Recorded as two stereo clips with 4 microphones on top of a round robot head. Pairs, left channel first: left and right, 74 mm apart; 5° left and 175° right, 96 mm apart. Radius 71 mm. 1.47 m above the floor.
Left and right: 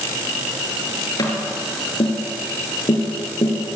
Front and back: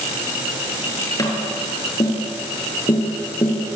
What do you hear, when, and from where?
1.2 s tapping: 60° left, 6.5 m